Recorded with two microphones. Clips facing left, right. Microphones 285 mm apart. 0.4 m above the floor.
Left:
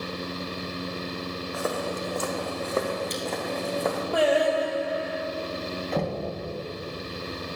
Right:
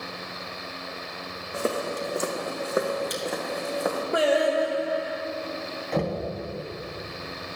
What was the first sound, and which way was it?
Footsteps, 30° right (ahead or behind).